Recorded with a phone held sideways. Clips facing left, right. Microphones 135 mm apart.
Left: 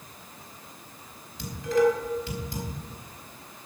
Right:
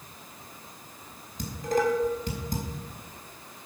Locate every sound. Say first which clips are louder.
1.4 s dishes clattering: left 4 dB; 45° right (ahead or behind), 4.5 m